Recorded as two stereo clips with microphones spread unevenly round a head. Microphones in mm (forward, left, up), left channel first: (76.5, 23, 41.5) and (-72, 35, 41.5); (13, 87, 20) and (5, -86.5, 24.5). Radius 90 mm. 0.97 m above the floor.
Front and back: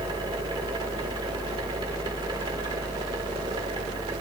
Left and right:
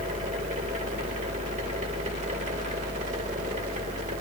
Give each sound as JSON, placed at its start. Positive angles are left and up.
{"t": 0.0, "sound": "a fan", "azimuth_deg": -130, "distance_m": 1.8}